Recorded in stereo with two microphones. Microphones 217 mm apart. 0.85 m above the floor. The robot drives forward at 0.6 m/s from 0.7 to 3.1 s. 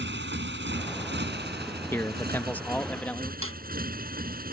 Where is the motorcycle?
60° right (ahead or behind); by 4.5 s 45° right (ahead or behind).